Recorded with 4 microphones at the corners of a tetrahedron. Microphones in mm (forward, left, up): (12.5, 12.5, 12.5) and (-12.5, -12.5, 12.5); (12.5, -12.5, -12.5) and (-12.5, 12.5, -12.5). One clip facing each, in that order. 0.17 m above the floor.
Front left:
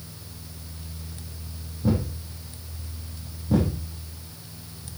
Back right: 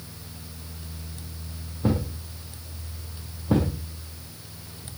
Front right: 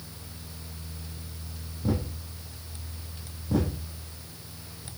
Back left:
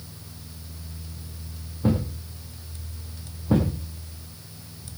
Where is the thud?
Straight behind, 9.5 m.